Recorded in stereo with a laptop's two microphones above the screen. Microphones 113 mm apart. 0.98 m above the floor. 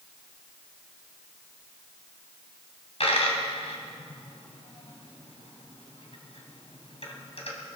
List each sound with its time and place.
3.0 s a dropped coin: 65° left (ahead or behind), 2.5 m